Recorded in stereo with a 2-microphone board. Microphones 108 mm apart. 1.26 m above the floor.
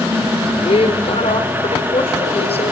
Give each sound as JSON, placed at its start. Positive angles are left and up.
{"t": 0.6, "sound": "a woman speaking", "side_deg": 65, "distance_m": 4.0}